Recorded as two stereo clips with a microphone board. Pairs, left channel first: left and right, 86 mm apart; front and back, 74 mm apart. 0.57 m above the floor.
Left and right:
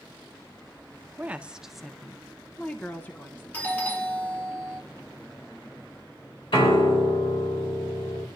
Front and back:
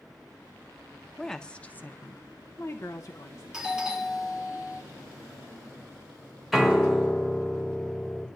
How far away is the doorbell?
About 1.2 m.